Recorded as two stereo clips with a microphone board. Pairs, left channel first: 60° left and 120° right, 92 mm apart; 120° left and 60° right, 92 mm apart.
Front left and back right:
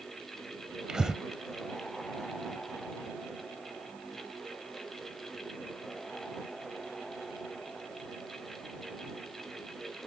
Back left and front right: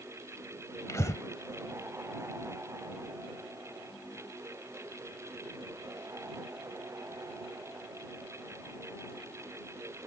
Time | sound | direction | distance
0.9 | breathing | 160° left | ?